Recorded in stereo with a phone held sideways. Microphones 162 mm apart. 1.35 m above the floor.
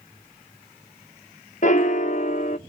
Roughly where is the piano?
Left.